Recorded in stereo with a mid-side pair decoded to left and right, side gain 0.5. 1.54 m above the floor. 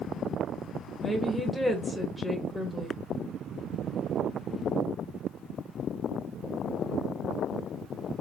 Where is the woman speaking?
10° left, 1.0 m.